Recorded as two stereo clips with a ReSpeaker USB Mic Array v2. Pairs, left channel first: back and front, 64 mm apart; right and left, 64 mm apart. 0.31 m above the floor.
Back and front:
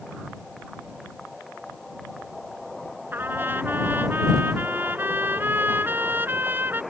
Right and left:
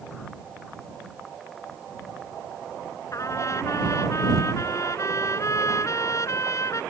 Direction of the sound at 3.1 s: 55° right.